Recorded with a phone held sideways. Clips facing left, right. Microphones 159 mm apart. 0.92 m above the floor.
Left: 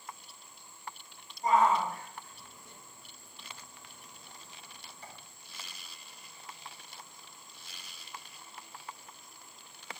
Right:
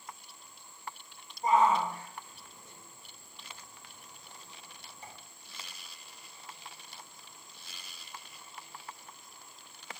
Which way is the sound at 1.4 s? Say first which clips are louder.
Even; 25° right (ahead or behind).